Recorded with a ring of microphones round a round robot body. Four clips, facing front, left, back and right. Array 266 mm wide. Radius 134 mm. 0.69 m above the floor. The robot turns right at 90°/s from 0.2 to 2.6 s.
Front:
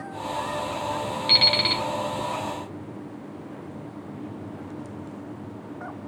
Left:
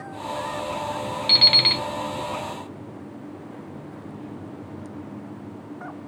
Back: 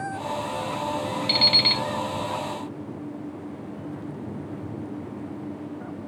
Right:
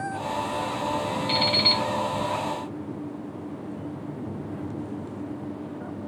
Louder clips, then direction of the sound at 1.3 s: Right 2 dB, even; 65° left.